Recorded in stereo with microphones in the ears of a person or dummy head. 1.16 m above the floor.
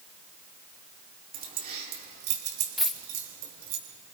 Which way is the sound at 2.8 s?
5° left (ahead or behind).